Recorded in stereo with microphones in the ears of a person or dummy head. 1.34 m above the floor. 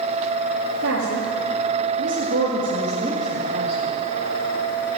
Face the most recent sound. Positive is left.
turn(degrees=-15)  # may be behind; listen again after turning